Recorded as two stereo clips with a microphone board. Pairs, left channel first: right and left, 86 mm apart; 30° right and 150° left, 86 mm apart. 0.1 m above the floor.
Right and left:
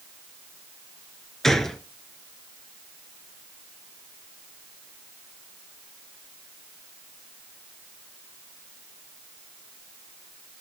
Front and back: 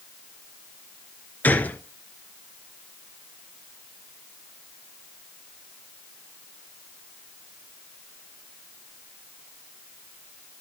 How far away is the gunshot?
About 1.1 m.